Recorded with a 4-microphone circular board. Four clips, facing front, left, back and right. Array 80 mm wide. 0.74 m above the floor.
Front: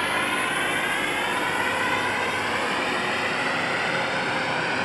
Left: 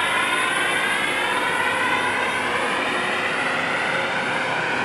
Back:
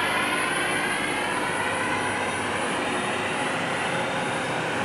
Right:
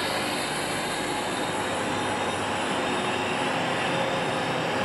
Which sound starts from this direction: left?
A drone, at 0.0 s.